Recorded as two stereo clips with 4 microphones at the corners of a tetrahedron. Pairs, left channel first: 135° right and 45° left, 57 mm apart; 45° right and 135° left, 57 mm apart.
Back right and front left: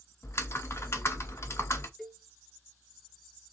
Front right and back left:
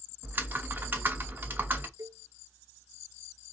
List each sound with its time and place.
0.2 s typing on a keyboard: 175° right, 0.8 m
2.0 s a cowbell: 140° left, 1.1 m